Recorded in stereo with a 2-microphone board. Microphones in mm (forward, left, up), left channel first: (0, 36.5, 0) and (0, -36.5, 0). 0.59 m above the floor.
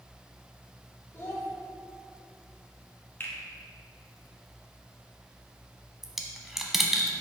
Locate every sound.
1.1 s a child speaking: 35° left (ahead or behind), 1.5 m
3.2 s a finger snap: 30° left (ahead or behind), 1.1 m
6.0 s a dropped coin: 5° right (ahead or behind), 0.7 m